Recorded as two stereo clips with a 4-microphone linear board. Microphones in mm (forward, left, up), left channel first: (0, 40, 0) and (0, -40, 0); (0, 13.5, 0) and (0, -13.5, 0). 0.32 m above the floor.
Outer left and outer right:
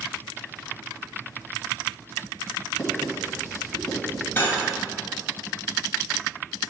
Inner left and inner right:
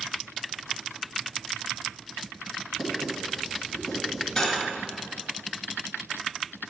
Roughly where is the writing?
Centre.